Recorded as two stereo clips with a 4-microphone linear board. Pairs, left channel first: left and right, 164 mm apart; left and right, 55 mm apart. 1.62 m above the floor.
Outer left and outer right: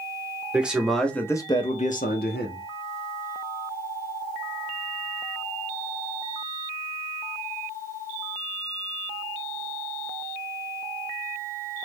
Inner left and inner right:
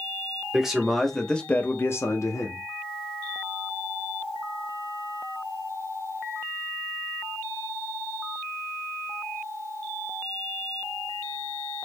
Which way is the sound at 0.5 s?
10° right (ahead or behind).